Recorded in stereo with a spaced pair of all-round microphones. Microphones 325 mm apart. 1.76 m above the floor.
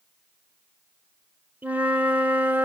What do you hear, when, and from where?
1.6 s a flute: 5° right (ahead or behind), 1.5 m